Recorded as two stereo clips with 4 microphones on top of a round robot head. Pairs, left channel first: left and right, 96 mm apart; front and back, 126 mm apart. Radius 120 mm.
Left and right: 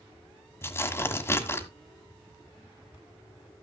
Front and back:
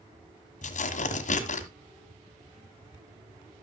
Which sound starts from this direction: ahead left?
Tearing paper, at 0.6 s.